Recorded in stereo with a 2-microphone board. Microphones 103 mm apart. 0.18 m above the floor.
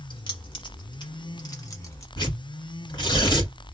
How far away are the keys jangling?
About 1.4 m.